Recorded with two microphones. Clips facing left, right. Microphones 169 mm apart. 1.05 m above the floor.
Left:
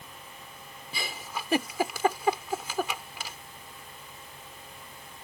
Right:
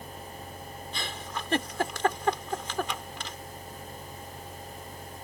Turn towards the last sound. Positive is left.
turn(degrees=10)  # may be behind; listen again after turning